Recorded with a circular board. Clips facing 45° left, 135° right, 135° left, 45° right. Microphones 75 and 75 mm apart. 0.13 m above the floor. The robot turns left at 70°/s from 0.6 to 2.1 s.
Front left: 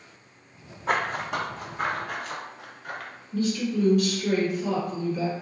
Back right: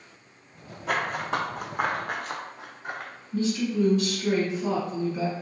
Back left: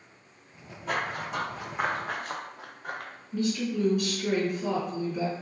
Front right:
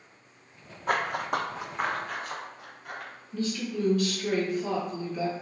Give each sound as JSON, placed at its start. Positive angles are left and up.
{"t": 0.9, "sound": "running footsteps", "azimuth_deg": -10, "distance_m": 0.7}
{"t": 3.3, "sound": "a woman speaking", "azimuth_deg": -160, "distance_m": 1.9}